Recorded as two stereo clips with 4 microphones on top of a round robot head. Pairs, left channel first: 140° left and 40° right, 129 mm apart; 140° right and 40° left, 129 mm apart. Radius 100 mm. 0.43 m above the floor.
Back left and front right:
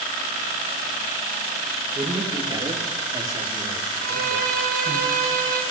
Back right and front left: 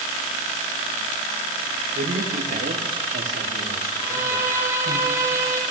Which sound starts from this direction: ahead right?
A violin, at 4.0 s.